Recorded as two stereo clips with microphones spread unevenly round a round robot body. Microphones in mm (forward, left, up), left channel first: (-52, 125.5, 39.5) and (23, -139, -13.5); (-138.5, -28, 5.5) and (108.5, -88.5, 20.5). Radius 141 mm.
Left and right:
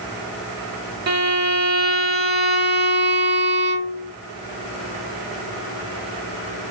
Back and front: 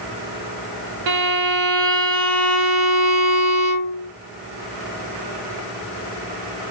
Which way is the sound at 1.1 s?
15° right.